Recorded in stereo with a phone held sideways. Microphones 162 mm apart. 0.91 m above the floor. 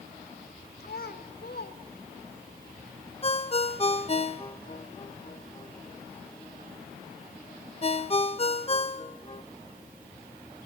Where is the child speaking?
70° left (ahead or behind), 2 m; by 2.5 s 45° left (ahead or behind), 2.5 m.